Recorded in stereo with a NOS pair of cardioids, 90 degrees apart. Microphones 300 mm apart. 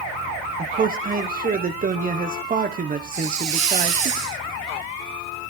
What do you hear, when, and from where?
0.6 s a man speaking: 30° right, 1.4 m
3.1 s a hiss: 60° right, 2.5 m